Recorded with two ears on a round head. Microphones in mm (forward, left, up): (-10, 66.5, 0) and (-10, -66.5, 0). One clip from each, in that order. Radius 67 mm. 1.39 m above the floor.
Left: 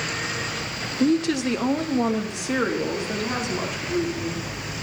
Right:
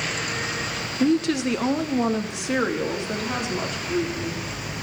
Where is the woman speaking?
5° left (ahead or behind), 0.8 m; by 4.4 s 10° right (ahead or behind), 4.5 m.